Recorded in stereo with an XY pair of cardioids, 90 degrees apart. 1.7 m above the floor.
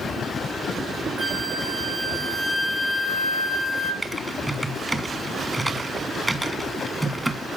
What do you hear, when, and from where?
1.2 s a flute: 25° right, 3 m
4.0 s typing on a keyboard: 15° right, 3 m